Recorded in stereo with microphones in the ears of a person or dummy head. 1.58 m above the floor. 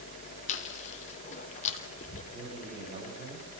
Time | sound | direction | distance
0.5 | chewing | 50° left (ahead or behind) | 3 m
2.3 | a man speaking | 45° right (ahead or behind) | 10 m